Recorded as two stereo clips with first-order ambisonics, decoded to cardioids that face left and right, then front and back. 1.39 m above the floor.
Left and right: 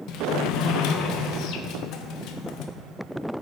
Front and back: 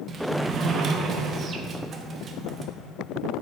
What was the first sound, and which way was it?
A sliding door, 120° left.